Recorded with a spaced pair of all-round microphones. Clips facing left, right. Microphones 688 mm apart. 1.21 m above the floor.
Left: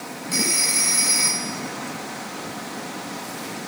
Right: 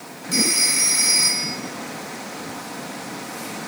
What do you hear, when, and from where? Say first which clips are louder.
0.3 s a phone ringing: right 4 dB; 20° right (ahead or behind), 8.5 m